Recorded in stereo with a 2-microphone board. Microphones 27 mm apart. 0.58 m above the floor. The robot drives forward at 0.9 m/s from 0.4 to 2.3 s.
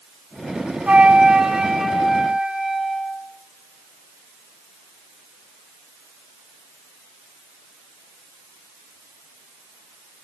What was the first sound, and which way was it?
A flute, 50° right (ahead or behind).